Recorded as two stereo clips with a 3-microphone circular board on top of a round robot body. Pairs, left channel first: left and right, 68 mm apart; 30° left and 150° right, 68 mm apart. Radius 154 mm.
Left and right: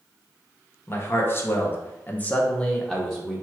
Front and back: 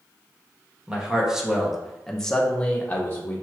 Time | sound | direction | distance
0.9 | a man speaking | 140° left | 1.5 m